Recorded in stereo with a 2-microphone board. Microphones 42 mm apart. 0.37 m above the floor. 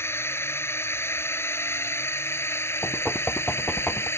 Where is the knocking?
20° left (ahead or behind).